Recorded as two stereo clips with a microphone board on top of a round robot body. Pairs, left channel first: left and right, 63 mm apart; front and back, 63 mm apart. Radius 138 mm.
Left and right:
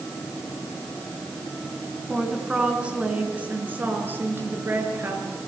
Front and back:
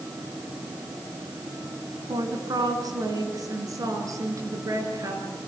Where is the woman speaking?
175° right, 4 m; by 5.5 s 145° right, 7 m.